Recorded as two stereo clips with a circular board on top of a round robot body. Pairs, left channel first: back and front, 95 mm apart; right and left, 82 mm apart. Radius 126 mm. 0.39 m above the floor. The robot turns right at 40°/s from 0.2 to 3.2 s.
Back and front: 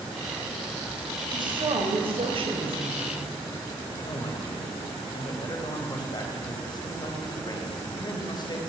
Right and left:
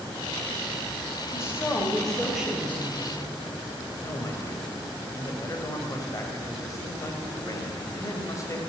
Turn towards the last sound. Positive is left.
turn(degrees=-140)